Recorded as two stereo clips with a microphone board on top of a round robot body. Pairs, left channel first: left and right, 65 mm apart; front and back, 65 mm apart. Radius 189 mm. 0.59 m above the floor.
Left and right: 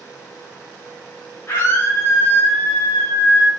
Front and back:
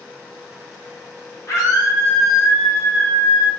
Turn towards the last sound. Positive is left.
turn(degrees=40)